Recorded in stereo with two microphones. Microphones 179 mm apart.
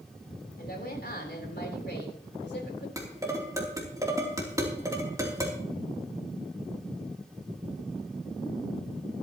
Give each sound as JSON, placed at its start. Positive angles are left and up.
{"t": 0.6, "sound": "a woman speaking", "side_deg": 60, "distance_m": 3.5}
{"t": 3.0, "sound": "dishes clattering", "side_deg": -20, "distance_m": 3.0}